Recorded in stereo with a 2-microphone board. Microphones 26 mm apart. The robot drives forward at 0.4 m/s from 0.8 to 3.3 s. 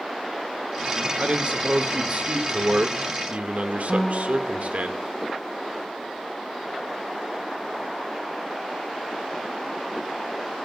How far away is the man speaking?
About 1.7 m.